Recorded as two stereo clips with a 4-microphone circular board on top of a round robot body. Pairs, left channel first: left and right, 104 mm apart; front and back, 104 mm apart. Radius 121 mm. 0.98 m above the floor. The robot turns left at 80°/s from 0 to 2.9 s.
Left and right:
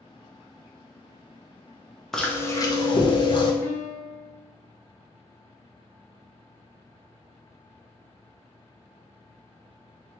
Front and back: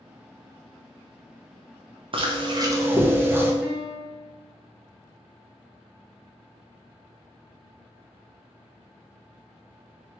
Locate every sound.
2.1 s chewing: 175° left, 0.9 m; by 3.5 s 115° left, 0.9 m
3.6 s a piano: 100° left, 0.5 m